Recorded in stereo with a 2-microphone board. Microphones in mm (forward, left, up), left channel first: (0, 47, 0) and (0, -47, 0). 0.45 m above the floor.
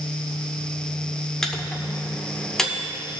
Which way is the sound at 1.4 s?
5° left (ahead or behind).